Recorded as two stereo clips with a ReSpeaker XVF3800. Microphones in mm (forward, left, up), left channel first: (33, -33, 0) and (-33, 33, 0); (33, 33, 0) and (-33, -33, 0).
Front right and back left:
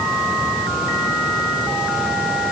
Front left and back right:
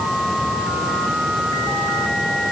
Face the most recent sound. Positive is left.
No sound to turn to.